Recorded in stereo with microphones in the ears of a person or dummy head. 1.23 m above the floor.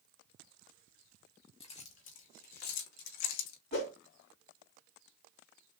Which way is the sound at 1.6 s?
35° left (ahead or behind).